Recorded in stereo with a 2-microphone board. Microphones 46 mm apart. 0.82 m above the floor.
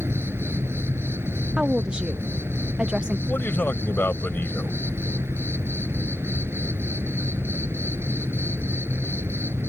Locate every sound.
0.0 s an insect: 65° right (ahead or behind)
1.6 s a woman speaking: 20° right (ahead or behind)
3.3 s a man speaking: 50° left (ahead or behind)